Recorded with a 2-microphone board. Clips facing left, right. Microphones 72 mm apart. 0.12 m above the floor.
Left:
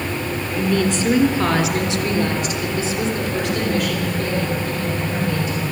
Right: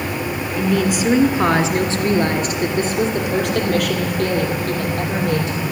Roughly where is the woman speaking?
Centre.